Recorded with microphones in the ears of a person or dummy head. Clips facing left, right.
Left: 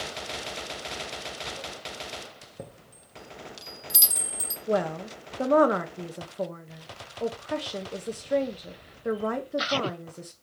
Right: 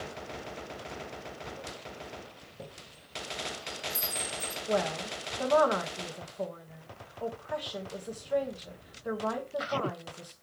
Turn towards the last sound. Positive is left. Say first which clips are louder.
# left 4 dB
turn(degrees=25)  # may be behind; listen again after turning